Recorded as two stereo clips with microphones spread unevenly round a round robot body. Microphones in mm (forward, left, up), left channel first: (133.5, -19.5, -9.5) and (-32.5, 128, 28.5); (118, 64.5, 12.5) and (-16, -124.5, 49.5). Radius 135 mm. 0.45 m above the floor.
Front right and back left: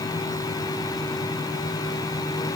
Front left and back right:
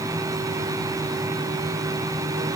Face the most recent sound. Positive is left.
No sound to turn to.